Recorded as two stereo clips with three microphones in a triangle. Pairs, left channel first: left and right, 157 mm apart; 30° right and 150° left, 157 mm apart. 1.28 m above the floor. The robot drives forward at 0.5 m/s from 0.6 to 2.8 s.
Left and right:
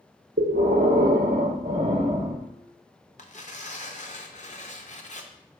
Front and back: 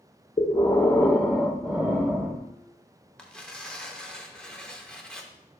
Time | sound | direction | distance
0.4 | breathing | 95° right | 0.9 m
3.2 | tearing paper | 55° left | 0.8 m